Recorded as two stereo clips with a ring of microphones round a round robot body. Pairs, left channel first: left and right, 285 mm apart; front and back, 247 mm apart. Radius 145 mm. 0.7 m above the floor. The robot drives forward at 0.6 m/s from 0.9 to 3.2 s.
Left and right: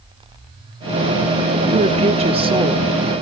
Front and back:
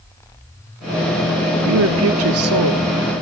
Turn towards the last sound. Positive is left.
turn(degrees=-165)